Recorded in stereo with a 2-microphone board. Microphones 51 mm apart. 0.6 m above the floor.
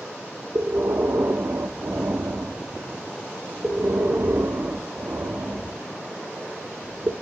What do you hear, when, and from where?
0.6 s breathing: 60° right (ahead or behind), 0.7 m